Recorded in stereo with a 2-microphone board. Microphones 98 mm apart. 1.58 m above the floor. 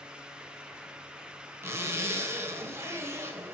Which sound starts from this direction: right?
A zipper, at 1.6 s.